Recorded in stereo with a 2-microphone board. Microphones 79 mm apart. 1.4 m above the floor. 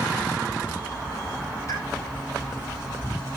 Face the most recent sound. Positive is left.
turn(degrees=40)  # may be behind; listen again after turning